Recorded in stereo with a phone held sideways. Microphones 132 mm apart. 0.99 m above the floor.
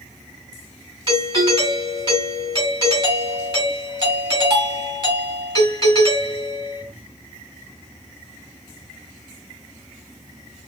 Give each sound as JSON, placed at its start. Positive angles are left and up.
{"t": 1.1, "sound": "a doorbell", "side_deg": -35, "distance_m": 2.5}